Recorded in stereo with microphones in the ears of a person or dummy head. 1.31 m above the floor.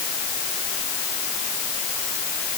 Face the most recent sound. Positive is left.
No sound to turn to.